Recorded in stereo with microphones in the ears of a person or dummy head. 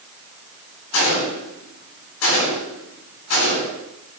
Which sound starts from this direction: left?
A gunshot, at 0.9 s.